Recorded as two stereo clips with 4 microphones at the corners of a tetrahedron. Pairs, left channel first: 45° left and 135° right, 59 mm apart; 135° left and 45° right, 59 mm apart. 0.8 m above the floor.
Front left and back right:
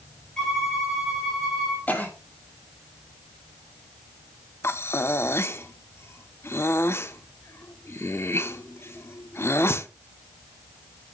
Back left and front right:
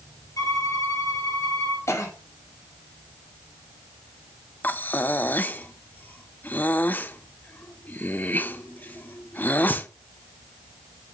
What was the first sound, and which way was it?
A violin, 125° left.